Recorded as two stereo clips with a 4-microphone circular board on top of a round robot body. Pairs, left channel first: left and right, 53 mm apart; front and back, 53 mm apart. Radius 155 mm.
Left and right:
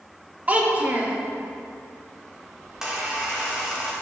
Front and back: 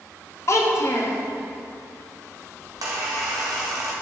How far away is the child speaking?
About 1.1 m.